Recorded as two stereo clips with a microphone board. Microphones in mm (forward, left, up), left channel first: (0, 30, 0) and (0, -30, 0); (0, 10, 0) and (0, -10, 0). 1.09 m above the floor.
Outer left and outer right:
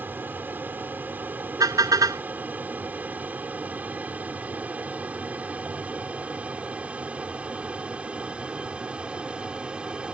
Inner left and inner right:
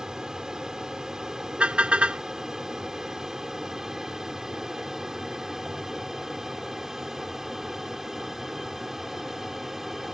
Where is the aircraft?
35° right (ahead or behind); by 10.1 s 20° right (ahead or behind).